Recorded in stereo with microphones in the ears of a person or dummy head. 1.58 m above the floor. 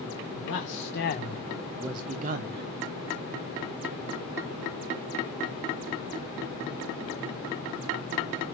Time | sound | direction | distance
0.4 | a man speaking | 65° left (ahead or behind) | 1.3 m